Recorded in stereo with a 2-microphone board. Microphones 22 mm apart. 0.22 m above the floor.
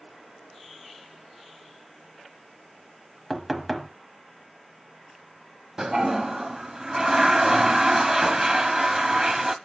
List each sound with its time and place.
3.3 s knocking: centre (ahead or behind), 0.9 m
5.8 s a toilet flushing: 25° right (ahead or behind), 0.6 m